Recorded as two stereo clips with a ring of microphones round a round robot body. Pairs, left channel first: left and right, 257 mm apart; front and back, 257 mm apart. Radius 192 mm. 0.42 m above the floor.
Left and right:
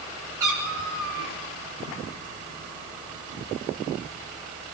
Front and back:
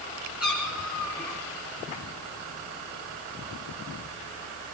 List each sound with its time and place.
0.4 s a cat meowing: 90° right, 7 m